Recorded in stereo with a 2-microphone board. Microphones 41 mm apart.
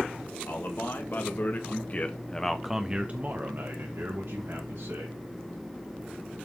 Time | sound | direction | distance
0.5 | a man speaking | 60° left (ahead or behind) | 3 m